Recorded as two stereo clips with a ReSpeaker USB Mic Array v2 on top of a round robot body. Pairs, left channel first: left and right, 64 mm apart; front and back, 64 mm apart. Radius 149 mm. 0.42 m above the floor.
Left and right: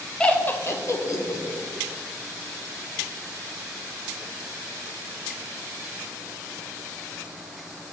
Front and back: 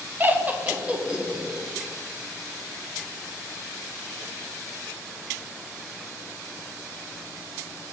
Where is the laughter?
150° left, 0.8 m; by 1.7 s 100° left, 1.6 m.